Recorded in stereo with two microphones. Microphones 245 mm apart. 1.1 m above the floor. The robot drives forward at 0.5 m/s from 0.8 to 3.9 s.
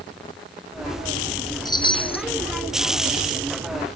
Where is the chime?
15° left (ahead or behind), 0.8 m; by 2.2 s 25° left (ahead or behind), 0.5 m.